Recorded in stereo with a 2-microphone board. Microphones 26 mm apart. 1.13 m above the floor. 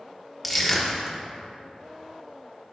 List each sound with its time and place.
0.4 s crushing: 5° right (ahead or behind), 1.2 m